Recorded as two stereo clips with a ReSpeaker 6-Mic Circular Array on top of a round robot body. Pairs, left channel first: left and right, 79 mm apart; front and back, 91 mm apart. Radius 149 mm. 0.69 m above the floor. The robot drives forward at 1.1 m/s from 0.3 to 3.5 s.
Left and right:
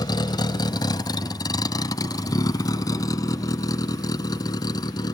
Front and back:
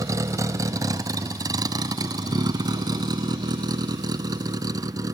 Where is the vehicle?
125° left.